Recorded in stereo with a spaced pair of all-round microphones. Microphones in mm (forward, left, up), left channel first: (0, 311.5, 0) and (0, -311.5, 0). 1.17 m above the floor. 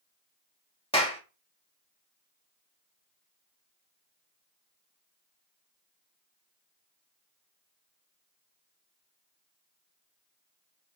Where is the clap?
10° left (ahead or behind), 1.9 m.